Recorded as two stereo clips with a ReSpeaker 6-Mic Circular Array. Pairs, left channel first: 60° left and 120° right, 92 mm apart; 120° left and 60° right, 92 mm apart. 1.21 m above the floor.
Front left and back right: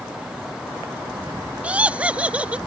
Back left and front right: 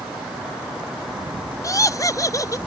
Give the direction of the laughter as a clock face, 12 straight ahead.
6 o'clock.